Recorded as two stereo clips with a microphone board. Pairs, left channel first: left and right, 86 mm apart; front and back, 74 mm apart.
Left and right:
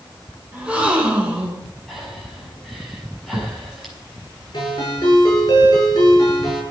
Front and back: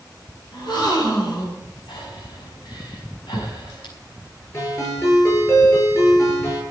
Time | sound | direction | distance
0.5 | a gasp | 15° right | 4 m
1.9 | breathing | straight ahead | 5.5 m
4.5 | a ringtone | 45° left | 9.5 m